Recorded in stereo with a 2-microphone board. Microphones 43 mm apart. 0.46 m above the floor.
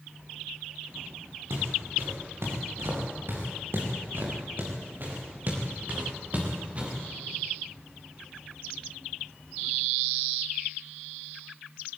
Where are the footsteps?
75° right (ahead or behind), 6.5 m; by 7.0 s 30° right (ahead or behind), 5 m.